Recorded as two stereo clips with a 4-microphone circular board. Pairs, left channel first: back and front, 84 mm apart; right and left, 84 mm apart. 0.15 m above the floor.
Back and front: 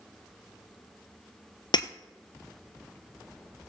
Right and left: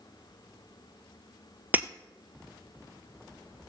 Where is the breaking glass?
160° left, 0.7 m.